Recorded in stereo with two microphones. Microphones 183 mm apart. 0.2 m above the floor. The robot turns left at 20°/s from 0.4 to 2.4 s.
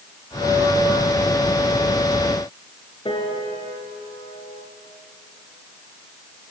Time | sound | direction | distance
3.0 | a piano | 30° left (ahead or behind) | 3.5 m